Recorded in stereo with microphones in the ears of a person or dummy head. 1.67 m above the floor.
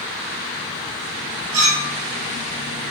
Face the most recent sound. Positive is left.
turn(degrees=-75)  # may be behind; listen again after turning